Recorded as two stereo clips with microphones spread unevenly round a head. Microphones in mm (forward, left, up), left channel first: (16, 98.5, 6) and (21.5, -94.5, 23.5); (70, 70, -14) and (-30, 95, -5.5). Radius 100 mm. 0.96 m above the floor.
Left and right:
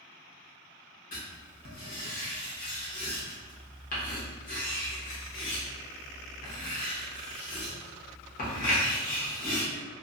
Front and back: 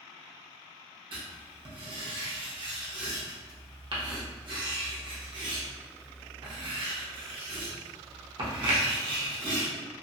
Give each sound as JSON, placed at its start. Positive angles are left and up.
{"t": 1.1, "sound": "writing", "azimuth_deg": 130, "distance_m": 0.9}